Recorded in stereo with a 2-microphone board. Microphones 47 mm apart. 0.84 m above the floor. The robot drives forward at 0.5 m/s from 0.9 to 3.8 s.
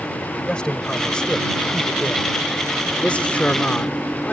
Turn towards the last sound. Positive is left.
turn(degrees=30)  # may be behind; listen again after turning